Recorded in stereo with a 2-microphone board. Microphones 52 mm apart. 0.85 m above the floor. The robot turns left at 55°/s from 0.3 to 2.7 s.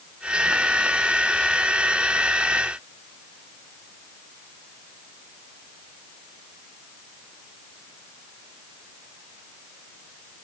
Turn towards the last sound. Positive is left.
No sound to turn to.